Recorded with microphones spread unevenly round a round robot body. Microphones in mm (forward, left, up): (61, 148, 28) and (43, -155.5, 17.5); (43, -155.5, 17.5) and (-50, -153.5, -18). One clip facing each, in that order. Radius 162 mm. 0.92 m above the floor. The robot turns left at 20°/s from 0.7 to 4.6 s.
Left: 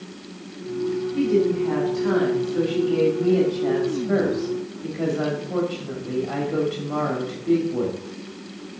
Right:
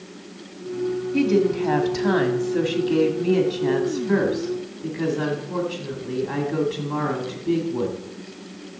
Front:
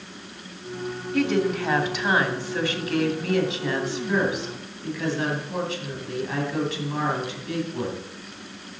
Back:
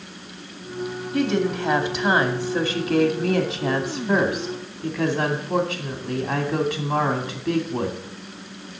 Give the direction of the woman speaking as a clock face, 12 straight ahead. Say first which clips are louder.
Right 1 dB, even; 4 o'clock.